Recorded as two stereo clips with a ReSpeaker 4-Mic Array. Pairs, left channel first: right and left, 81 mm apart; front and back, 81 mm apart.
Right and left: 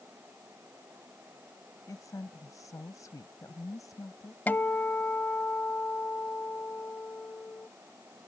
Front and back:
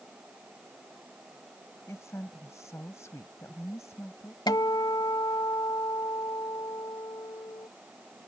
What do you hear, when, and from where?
1.9 s a woman speaking: 50° right
4.5 s a guitar: 25° right